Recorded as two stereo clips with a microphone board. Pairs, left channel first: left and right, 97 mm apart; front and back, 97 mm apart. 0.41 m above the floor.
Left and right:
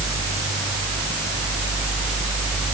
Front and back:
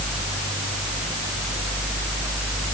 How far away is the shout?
I don't hear a shout.